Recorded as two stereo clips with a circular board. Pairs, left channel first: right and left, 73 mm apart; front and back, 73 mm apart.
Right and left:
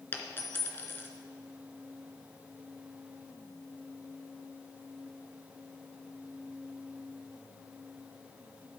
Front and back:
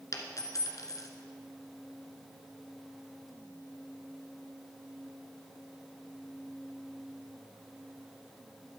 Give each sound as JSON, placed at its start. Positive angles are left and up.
{"t": 0.1, "sound": "a dropped coin", "azimuth_deg": -35, "distance_m": 1.2}